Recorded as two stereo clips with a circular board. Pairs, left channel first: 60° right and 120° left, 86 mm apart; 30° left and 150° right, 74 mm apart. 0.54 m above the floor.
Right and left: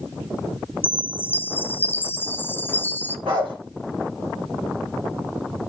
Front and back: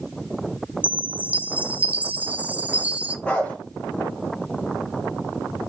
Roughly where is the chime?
Right.